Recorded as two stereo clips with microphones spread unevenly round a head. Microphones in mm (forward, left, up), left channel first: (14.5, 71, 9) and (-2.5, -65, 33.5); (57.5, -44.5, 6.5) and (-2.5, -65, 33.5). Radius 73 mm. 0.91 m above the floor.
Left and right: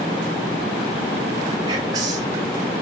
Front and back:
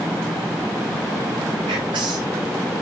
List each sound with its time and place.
1.7 s whispering: 165° right, 0.6 m